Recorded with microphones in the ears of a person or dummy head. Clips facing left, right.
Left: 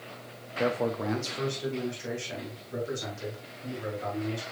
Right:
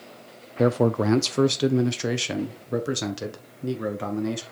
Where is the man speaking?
50° right (ahead or behind), 0.7 m; by 4.4 s 70° right (ahead or behind), 2.5 m.